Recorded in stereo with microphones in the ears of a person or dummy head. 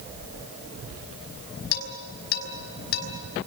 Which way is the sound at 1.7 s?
55° left (ahead or behind).